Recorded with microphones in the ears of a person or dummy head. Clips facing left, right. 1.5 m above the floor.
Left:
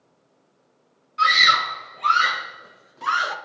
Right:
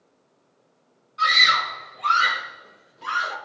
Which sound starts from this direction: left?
A scream, at 1.2 s.